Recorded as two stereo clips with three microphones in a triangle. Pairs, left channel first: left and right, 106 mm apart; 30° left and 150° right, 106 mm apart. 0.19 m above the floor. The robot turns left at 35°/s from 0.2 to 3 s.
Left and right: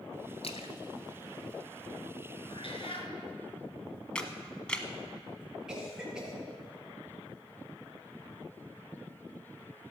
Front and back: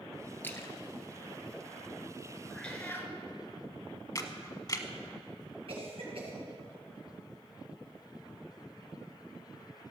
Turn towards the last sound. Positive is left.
turn(degrees=-175)